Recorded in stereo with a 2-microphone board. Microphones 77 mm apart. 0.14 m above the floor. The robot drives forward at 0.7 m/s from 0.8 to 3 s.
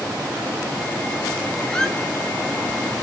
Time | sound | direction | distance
1.7 | a squeak | 10° left (ahead or behind) | 0.9 m